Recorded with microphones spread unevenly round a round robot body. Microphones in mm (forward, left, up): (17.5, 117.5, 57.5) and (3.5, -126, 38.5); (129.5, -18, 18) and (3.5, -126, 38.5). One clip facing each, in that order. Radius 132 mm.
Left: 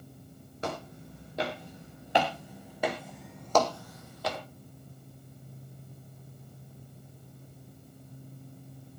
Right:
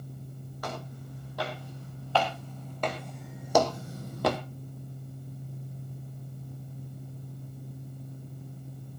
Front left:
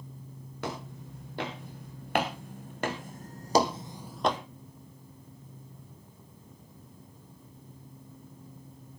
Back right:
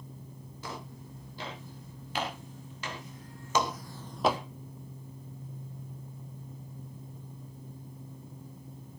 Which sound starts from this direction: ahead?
Footsteps, at 0.6 s.